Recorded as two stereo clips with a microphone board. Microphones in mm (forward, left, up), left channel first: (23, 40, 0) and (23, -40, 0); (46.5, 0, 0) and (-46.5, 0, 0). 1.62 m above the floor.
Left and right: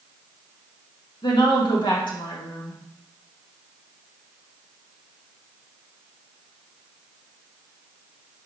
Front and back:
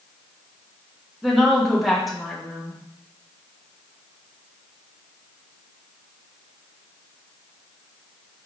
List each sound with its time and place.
1.2 s a woman speaking: 90° left, 2 m